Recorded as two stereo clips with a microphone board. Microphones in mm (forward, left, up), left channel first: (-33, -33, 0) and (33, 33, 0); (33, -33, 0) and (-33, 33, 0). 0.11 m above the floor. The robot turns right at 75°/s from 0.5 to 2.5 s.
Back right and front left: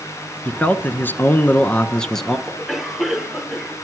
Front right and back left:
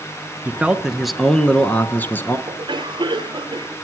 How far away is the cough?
About 2 m.